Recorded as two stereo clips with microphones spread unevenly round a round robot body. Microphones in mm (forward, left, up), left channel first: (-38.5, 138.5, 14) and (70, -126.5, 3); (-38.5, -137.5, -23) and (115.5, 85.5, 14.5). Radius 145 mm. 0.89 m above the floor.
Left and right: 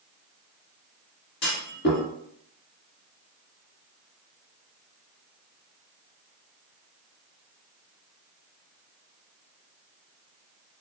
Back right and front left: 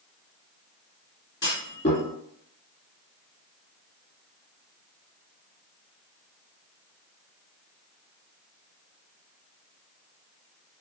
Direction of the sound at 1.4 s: 155° left.